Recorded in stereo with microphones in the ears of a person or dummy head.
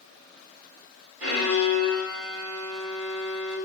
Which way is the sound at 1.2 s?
70° right (ahead or behind).